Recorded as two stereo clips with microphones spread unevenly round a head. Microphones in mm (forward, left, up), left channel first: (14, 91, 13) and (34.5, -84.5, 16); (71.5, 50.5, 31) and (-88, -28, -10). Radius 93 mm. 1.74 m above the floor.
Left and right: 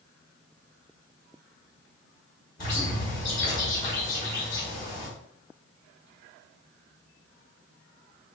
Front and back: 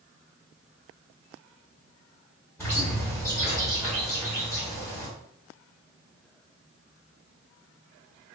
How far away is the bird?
About 1.7 m.